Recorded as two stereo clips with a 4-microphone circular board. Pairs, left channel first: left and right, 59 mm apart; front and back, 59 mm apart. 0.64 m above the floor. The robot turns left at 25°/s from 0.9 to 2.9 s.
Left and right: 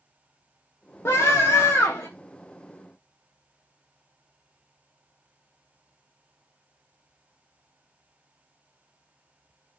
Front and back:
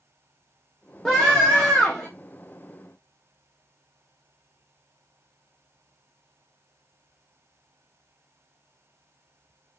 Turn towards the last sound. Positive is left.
turn(degrees=35)